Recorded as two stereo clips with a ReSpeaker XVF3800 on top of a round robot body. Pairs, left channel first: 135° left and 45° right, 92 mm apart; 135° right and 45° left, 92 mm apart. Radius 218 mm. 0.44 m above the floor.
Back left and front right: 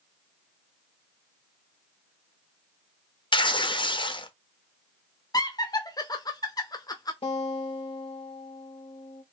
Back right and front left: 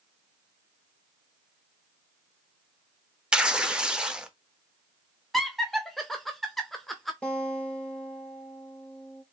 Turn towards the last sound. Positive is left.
turn(degrees=150)